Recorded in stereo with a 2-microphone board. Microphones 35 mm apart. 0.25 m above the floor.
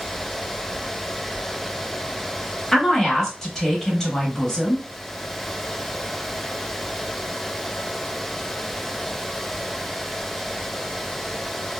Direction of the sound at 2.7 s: 15° left (ahead or behind).